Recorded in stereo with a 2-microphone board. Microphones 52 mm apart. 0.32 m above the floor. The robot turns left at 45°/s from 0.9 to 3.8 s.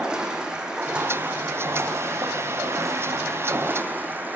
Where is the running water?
15° right, 7.5 m; by 4.4 s 145° right, 7.5 m.